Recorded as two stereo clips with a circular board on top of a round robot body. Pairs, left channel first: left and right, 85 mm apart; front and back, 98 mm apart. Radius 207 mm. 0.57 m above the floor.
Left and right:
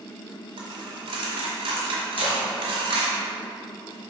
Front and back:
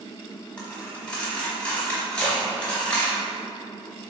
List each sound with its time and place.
0.6 s a dropped coin: 80° right, 1.0 m
2.1 s a splash: 80° left, 2.0 m